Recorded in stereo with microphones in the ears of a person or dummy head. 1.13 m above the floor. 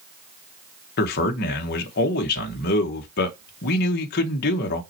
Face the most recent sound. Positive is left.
turn(degrees=45)  # may be behind; listen again after turning